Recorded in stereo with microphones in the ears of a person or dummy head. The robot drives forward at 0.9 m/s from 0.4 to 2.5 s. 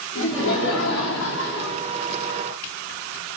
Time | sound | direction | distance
0.1 | laughter | 75° left (ahead or behind) | 4.5 m